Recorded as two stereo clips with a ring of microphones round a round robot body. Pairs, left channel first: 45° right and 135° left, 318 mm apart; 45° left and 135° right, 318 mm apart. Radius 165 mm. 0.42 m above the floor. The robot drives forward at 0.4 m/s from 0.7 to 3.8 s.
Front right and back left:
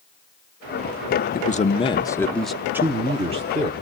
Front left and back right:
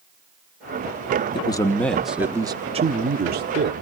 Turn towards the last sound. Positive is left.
turn(degrees=-170)